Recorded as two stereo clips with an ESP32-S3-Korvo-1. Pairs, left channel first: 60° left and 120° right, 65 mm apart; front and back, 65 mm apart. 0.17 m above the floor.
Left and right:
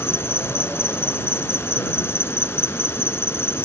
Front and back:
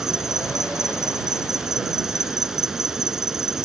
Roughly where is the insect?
Left.